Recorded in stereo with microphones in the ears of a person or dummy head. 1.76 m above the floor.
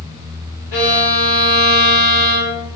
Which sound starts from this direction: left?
A violin, at 0.7 s.